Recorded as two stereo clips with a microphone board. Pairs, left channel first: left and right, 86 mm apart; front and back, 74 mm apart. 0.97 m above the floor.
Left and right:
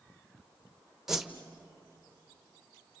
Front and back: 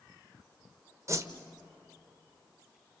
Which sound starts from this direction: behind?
A whoosh, at 1.1 s.